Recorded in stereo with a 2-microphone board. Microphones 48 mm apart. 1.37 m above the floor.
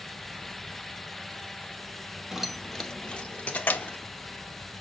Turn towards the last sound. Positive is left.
turn(degrees=40)  # may be behind; listen again after turning